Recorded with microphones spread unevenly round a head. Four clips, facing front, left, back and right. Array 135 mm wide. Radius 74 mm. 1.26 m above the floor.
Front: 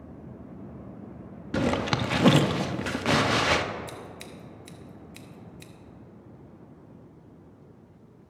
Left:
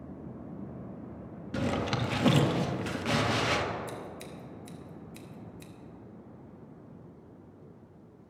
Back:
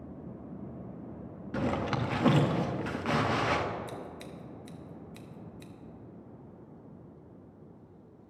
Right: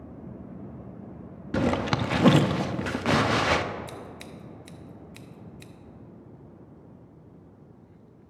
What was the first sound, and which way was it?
A zipper, 25° right.